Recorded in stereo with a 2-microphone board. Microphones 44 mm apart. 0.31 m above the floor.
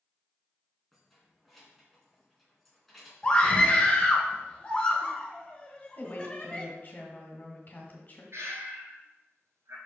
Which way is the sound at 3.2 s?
20° left (ahead or behind).